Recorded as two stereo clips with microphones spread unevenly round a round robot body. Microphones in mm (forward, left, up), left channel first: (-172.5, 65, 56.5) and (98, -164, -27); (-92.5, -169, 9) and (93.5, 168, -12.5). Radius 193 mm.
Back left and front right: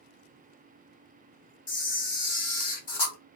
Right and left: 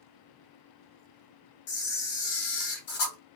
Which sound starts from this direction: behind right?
A camera shutter, at 1.7 s.